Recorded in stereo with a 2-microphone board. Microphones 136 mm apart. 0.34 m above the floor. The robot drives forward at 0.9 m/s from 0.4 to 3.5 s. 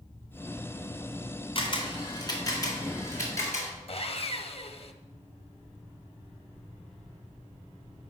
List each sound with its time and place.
1.6 s a camera shutter: 45° left (ahead or behind), 1.6 m; by 3.7 s 20° left (ahead or behind), 3 m
3.9 s sawing: 50° left (ahead or behind), 0.6 m